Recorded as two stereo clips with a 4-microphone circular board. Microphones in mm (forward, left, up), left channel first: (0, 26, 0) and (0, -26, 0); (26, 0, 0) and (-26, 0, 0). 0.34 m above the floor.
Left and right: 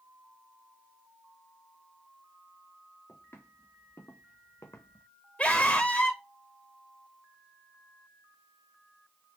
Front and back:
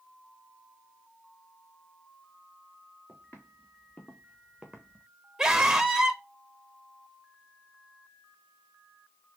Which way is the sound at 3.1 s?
55° left.